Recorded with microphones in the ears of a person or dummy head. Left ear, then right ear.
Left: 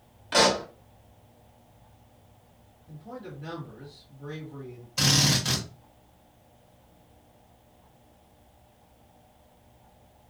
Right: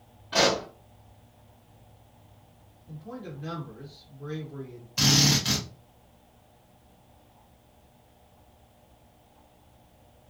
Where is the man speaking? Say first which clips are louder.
Even; centre (ahead or behind), 1.5 m.